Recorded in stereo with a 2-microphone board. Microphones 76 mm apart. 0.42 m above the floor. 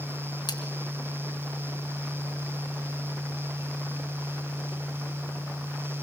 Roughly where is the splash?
Left.